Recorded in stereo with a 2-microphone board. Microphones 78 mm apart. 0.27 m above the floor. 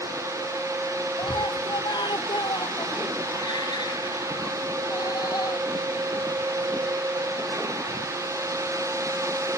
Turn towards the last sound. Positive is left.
turn(degrees=60)  # may be behind; listen again after turning